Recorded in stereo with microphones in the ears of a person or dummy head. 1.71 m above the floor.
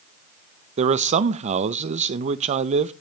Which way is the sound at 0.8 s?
35° right (ahead or behind).